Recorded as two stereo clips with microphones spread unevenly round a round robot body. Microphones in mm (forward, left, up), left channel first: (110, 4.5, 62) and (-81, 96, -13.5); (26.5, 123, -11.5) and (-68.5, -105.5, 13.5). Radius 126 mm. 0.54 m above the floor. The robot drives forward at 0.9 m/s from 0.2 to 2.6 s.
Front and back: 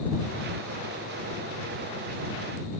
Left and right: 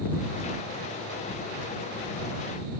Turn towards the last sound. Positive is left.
No sound to turn to.